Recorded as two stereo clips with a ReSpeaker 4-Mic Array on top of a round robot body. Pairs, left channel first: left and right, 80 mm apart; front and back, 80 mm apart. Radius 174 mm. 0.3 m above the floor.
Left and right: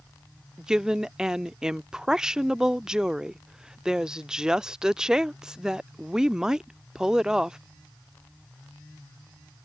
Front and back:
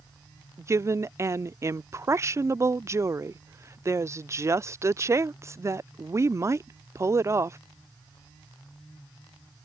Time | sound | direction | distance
0.6 | a woman speaking | 165° right | ?